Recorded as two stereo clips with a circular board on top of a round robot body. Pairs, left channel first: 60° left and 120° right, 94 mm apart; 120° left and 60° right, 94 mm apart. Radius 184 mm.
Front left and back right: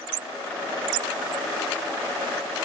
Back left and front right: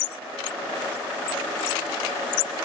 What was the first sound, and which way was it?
Only background noise.